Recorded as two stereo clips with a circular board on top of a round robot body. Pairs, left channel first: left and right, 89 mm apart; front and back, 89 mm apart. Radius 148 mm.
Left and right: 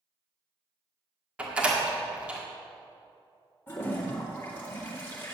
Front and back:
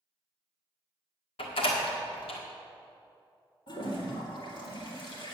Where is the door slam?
10° right, 1.8 m.